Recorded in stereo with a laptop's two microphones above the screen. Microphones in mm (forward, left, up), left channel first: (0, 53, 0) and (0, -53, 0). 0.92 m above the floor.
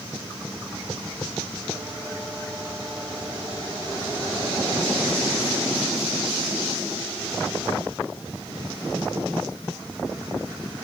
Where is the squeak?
No squeak in this recording.